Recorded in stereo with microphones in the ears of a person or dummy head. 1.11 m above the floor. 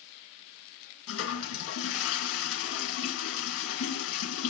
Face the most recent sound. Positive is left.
turn(degrees=75)  # may be behind; listen again after turning